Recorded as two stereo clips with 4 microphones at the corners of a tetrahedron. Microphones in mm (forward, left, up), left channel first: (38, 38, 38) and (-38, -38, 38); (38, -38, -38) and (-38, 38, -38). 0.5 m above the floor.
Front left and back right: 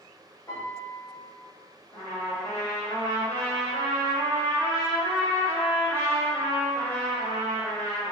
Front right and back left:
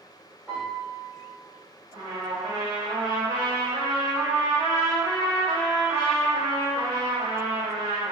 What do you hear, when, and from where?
0.5 s a piano: 70° left, 1.3 m
1.9 s a trumpet: 110° left, 1.8 m